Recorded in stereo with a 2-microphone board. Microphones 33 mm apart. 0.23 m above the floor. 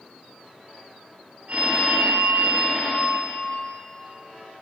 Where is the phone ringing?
40° right (ahead or behind), 1.3 m.